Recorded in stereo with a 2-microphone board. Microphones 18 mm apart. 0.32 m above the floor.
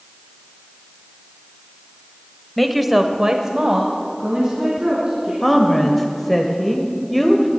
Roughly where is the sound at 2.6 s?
Centre.